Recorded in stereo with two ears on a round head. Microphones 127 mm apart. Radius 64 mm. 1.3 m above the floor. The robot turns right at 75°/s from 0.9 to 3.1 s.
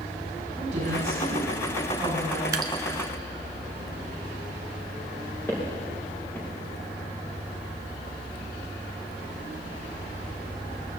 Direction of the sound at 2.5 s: 25° right (ahead or behind).